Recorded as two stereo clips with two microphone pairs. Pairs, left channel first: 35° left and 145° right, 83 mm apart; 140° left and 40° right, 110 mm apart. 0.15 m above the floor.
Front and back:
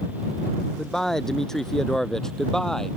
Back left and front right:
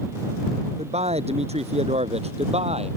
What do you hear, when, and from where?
0.8 s a man speaking: 50° right